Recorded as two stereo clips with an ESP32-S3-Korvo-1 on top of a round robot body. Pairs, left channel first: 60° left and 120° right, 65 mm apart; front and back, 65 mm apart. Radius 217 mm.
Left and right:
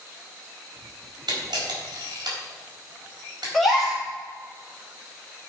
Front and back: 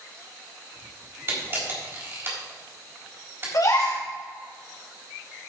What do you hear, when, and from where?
1.3 s a camera shutter: 125° right, 4 m
3.5 s a gasp: 30° right, 3.5 m